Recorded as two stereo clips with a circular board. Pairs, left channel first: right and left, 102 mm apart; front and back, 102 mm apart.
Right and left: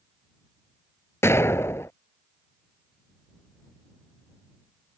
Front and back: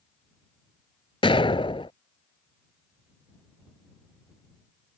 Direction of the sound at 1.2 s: 25° right.